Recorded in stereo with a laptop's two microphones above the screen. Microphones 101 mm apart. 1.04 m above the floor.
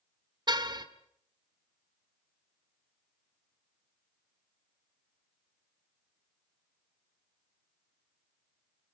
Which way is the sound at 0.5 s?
45° right (ahead or behind).